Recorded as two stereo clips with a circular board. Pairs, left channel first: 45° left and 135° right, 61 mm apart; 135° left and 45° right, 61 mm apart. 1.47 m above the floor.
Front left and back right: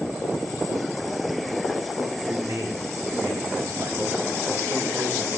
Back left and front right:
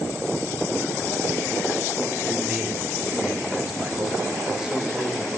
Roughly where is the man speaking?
Behind right.